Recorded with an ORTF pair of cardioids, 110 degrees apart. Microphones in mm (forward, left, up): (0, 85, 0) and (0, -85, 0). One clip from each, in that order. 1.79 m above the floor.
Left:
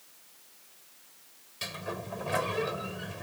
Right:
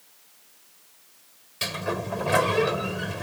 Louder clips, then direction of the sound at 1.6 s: Right 8 dB; 45° right.